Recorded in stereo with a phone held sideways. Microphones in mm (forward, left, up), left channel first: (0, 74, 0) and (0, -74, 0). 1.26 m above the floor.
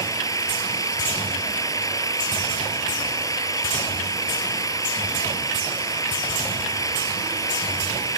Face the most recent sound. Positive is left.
turn(degrees=20)  # may be behind; listen again after turning